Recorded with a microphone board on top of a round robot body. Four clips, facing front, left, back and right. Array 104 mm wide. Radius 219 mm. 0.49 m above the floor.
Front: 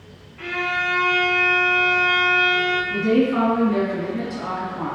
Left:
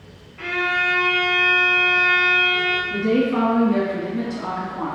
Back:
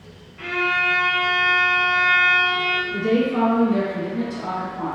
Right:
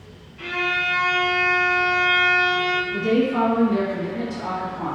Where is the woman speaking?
40° left, 1.9 m.